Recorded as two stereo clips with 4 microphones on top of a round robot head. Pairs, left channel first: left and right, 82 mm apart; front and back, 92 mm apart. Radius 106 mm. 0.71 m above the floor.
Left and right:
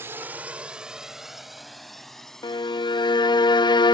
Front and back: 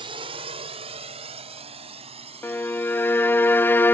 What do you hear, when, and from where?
0.0 s a drone: 155° right; by 4.0 s 170° left
2.4 s a violin: 65° left